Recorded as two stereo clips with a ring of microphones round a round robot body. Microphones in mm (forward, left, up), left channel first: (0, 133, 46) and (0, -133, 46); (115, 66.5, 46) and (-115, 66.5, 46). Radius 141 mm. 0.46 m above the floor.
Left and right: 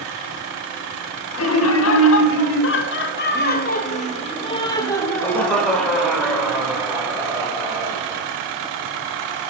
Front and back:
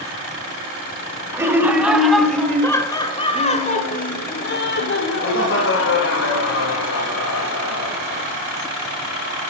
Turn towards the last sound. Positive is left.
turn(degrees=-15)